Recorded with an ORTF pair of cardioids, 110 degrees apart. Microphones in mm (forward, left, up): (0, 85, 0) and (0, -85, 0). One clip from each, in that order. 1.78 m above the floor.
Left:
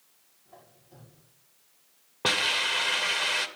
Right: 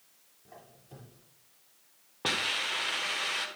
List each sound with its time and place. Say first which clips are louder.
0.5 s a squeak: right 2 dB; 60° right, 8 m
2.2 s a hiss: left 5 dB; 25° left, 1.9 m